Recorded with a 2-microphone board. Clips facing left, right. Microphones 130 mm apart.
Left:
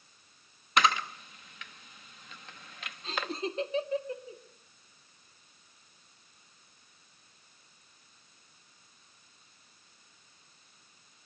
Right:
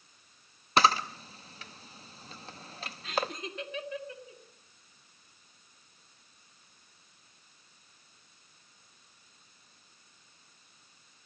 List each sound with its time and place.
0.8 s a camera shutter: 35° right (ahead or behind), 0.8 m
3.0 s laughter: 35° left (ahead or behind), 2.0 m